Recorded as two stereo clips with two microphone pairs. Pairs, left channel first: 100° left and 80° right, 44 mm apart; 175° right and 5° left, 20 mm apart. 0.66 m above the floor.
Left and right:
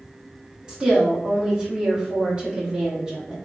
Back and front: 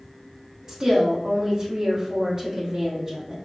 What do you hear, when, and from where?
0.7 s a woman speaking: 25° right, 1.2 m